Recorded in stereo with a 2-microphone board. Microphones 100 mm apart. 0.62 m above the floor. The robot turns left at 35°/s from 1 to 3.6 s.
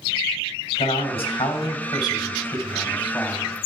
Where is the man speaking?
75° left, 3 m; by 3.5 s 15° right, 3 m.